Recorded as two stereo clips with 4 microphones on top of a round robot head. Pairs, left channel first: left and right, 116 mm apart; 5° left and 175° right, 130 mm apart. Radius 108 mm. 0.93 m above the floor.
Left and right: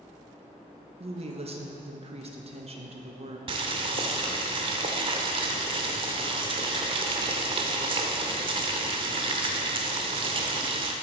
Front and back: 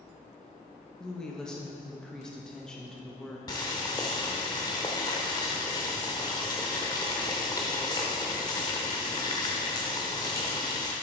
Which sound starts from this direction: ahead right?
Boiling, at 3.5 s.